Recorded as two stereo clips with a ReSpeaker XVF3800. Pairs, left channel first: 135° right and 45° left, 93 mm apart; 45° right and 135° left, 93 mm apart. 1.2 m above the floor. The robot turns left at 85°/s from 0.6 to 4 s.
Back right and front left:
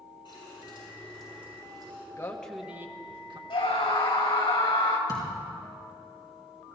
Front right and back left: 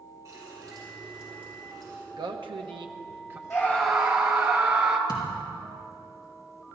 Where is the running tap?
170° right, 6.5 m; by 2.1 s 65° left, 6.5 m.